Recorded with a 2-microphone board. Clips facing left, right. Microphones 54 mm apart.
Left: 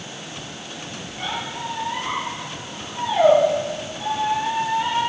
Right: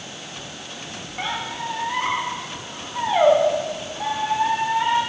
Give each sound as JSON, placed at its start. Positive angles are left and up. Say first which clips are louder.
{"t": 1.2, "sound": "a squeak", "louder": "right 1 dB", "side_deg": -45, "distance_m": 2.5}